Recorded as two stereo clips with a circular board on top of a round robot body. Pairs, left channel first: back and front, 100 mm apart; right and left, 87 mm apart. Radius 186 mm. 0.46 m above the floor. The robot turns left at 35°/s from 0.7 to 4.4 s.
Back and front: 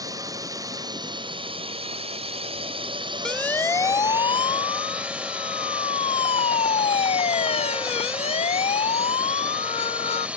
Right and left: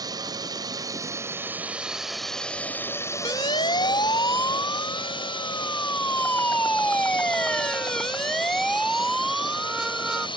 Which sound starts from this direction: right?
A siren, at 3.2 s.